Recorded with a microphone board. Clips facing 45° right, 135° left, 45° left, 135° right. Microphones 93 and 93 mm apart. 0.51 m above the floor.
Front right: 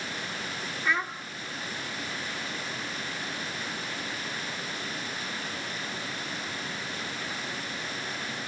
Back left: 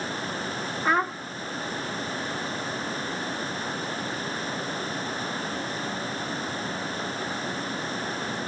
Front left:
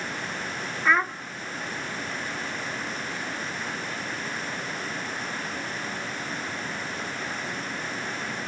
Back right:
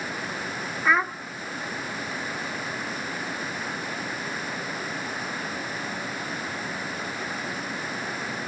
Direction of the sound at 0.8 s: 140° left.